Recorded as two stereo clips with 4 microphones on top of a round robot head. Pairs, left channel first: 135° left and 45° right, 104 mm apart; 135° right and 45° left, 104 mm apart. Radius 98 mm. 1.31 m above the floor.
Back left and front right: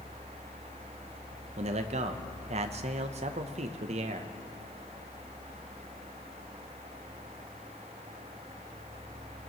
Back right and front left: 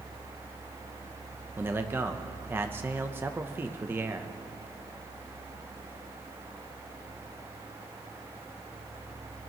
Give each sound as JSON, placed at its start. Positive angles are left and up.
{"t": 1.6, "sound": "a man speaking", "azimuth_deg": -25, "distance_m": 0.8}